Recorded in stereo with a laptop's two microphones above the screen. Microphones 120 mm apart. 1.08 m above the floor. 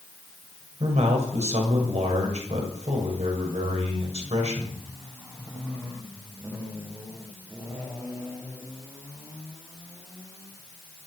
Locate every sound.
0.8 s a man speaking: 65° right (ahead or behind), 6.5 m